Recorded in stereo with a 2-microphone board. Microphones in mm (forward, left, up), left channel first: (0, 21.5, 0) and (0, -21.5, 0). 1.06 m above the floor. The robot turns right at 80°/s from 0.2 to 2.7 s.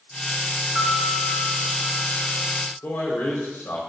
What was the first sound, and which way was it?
A piano, 55° right.